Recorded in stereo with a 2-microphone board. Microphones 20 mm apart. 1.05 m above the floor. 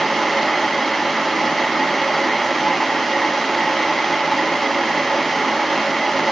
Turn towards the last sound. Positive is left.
No sound to turn to.